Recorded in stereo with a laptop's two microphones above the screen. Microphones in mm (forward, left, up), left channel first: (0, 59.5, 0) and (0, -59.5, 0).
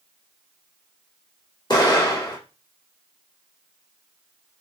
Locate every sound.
1.7 s an explosion: 35° left (ahead or behind), 1.1 m